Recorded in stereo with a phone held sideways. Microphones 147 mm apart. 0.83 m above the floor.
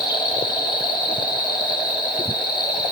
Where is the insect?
30° left (ahead or behind), 2.5 m.